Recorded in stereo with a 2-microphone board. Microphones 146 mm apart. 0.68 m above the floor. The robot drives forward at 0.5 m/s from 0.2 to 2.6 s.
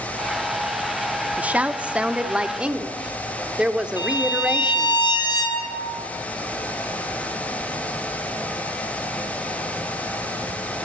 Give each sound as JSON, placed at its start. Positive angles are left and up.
{"t": 1.4, "sound": "a woman speaking", "side_deg": -10, "distance_m": 1.0}
{"t": 4.0, "sound": "a violin", "side_deg": 30, "distance_m": 4.5}